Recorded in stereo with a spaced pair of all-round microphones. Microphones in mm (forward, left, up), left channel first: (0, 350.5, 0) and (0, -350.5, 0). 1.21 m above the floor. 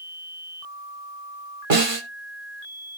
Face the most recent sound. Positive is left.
turn(degrees=-50)  # may be behind; listen again after turning